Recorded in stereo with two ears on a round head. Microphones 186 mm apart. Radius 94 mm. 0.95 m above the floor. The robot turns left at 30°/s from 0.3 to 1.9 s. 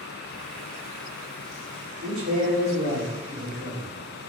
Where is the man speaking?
60° right (ahead or behind), 1.5 m.